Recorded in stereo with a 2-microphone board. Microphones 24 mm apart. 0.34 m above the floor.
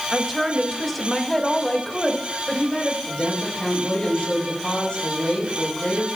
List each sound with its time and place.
0.1 s a woman speaking: 10° right (ahead or behind), 1.8 m; by 3.0 s 35° left (ahead or behind), 1.7 m
3.1 s a woman speaking: 45° left (ahead or behind), 6 m